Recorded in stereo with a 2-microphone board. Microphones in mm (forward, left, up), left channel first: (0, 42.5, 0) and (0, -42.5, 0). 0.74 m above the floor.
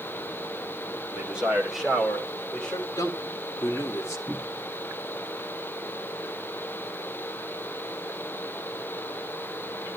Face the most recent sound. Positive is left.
turn(degrees=-5)  # may be behind; listen again after turning